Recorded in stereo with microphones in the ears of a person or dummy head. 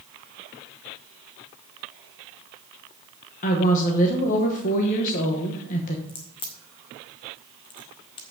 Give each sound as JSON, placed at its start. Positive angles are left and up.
{"t": 3.4, "sound": "a woman speaking", "side_deg": 45, "distance_m": 1.1}
{"t": 6.1, "sound": "a crack", "side_deg": 30, "distance_m": 1.2}